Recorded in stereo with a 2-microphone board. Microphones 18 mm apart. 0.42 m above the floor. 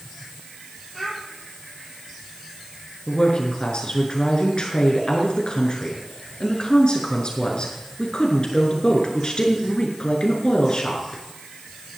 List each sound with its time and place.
0.9 s a child speaking: centre (ahead or behind), 9.5 m
3.1 s a woman speaking: 55° left (ahead or behind), 6 m